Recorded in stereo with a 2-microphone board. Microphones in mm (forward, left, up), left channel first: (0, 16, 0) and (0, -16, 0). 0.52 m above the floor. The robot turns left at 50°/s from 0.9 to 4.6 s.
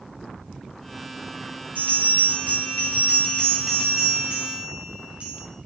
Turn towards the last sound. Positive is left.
turn(degrees=-50)